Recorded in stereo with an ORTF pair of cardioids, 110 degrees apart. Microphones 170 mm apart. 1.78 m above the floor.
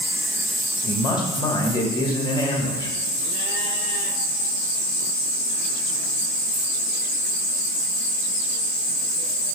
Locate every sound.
0.8 s a man speaking: 25° left, 1.8 m